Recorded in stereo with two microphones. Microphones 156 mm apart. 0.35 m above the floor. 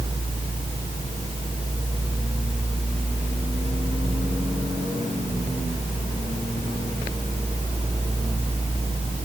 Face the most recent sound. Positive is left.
No sound to turn to.